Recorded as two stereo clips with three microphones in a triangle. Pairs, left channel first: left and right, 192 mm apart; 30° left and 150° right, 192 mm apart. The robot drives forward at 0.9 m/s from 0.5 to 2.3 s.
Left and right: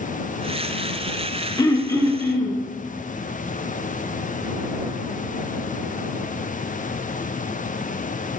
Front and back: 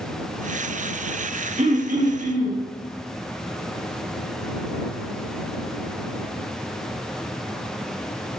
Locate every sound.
1.6 s throat clearing: 160° left, 1.1 m; by 2.6 s 170° left, 1.7 m